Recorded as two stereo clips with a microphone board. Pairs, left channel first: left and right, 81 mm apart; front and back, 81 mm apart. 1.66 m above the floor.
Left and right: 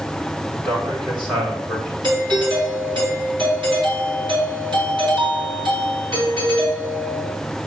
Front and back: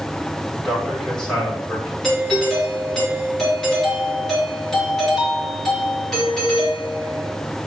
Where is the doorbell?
85° right, 4.5 m.